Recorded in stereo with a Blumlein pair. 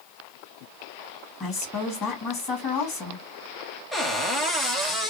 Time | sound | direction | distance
1.4 | a woman speaking | 25° left | 2.0 m
3.9 | a cupboard door | 5° left | 0.9 m